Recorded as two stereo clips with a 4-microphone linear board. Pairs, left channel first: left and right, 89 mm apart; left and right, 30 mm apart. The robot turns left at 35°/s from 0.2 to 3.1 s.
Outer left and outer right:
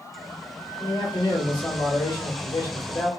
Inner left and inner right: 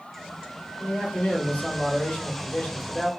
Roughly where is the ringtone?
No ringtone in this recording.